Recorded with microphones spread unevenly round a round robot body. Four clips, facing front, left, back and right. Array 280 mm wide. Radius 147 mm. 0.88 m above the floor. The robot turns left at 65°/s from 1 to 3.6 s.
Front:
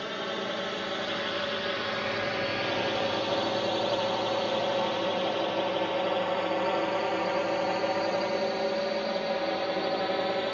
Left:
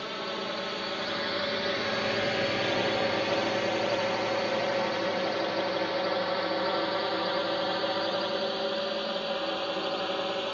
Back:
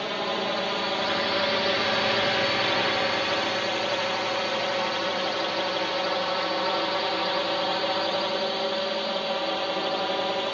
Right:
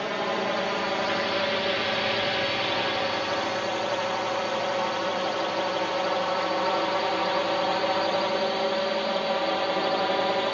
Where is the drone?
115° right; by 10.5 s 85° right.